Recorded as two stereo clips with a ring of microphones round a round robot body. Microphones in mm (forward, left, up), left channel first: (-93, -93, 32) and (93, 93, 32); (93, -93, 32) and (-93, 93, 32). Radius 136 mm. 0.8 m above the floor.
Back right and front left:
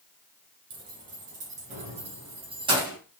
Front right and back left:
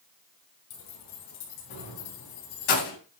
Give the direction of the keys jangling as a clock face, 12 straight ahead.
12 o'clock.